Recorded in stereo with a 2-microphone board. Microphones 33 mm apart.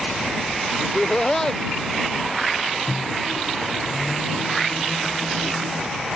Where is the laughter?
20° left (ahead or behind).